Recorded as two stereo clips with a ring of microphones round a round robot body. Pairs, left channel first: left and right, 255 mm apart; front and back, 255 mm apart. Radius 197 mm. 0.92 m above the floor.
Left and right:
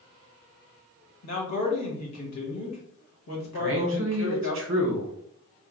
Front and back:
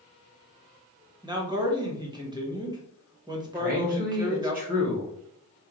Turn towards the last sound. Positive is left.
turn(degrees=-125)